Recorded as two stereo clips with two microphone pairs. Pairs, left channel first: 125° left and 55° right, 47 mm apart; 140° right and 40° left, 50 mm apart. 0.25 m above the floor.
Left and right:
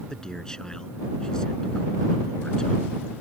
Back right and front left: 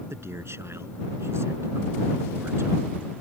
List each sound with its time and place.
0.1 s a man speaking: 50° left